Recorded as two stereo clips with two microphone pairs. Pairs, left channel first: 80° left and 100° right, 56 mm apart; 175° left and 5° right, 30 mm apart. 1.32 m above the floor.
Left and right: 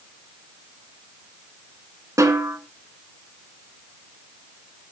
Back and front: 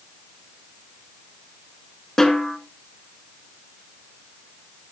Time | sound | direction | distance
2.2 | a snare drum | 105° right | 2 m